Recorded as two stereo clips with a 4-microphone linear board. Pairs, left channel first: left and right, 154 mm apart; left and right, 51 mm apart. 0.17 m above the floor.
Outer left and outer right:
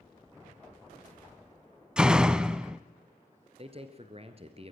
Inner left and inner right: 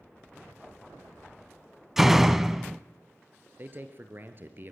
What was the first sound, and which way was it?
A door slam, 5° right (ahead or behind).